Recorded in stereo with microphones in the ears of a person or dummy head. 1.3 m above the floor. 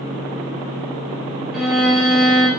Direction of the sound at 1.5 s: 10° right (ahead or behind).